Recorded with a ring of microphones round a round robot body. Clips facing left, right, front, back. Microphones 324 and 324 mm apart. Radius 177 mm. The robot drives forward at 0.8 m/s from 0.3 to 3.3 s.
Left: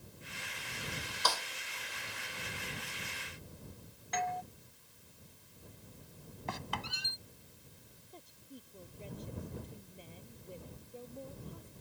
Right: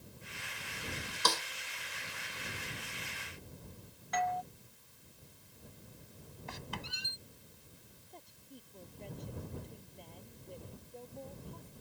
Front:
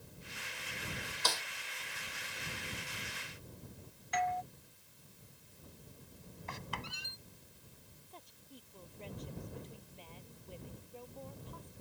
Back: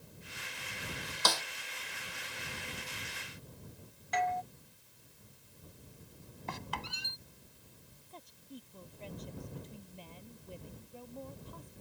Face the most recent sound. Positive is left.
turn(degrees=175)